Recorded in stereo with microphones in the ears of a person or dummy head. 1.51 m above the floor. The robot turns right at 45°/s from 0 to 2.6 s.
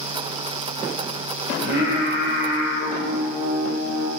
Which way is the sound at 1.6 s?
95° right.